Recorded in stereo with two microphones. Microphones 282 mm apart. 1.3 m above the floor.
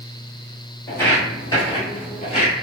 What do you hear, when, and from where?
0.9 s footsteps: 10° left (ahead or behind), 1.5 m; by 2.5 s 25° left (ahead or behind), 1.4 m